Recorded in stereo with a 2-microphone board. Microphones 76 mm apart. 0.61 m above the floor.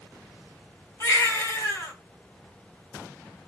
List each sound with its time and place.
1.0 s a baby crying: 40° left (ahead or behind), 1.1 m